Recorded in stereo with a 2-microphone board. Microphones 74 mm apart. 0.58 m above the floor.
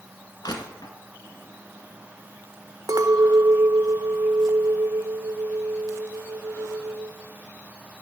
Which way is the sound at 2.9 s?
55° right (ahead or behind).